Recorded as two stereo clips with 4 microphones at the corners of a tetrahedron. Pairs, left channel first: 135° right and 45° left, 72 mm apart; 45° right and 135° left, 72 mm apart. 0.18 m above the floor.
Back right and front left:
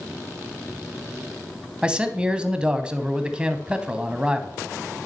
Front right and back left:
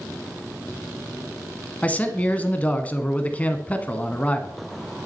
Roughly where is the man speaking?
Ahead.